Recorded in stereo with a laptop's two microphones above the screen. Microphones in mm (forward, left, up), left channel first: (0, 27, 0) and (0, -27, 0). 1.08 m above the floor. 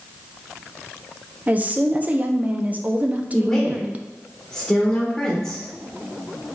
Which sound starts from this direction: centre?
A woman speaking, at 3.3 s.